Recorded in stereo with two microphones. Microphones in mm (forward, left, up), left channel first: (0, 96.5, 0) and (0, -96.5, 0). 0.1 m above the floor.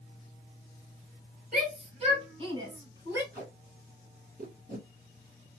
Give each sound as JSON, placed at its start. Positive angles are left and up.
{"t": 1.5, "sound": "a shout", "side_deg": -40, "distance_m": 2.0}
{"t": 3.3, "sound": "tape being pulled", "side_deg": -50, "distance_m": 2.5}